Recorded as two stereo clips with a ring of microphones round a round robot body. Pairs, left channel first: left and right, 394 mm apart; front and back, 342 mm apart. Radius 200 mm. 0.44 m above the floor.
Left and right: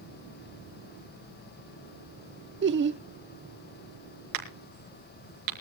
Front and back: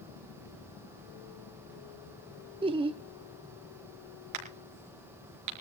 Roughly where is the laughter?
Behind right.